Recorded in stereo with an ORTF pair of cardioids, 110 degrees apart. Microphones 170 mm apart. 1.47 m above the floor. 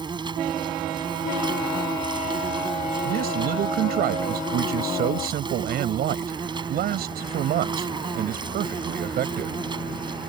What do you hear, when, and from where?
0.0 s an insect: 30° right
3.0 s a man speaking: 65° right